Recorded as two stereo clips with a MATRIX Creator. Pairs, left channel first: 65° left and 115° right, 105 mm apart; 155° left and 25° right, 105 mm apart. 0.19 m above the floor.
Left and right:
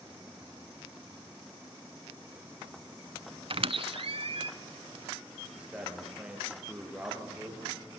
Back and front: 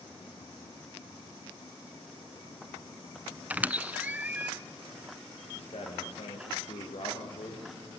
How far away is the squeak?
About 0.6 m.